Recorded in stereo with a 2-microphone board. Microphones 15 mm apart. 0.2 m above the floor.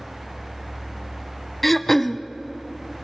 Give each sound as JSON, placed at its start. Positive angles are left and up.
{"t": 1.6, "sound": "throat clearing", "side_deg": 15, "distance_m": 0.6}